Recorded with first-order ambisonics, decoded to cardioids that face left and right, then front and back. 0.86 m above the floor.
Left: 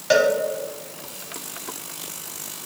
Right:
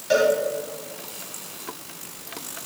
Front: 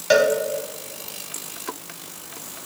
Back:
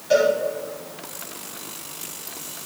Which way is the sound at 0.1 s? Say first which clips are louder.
Left 2 dB, front 1 dB; 30° left.